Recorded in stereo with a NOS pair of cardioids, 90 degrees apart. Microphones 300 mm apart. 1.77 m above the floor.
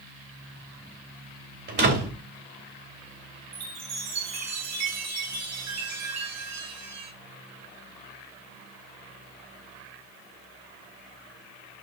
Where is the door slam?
35° right, 3.5 m.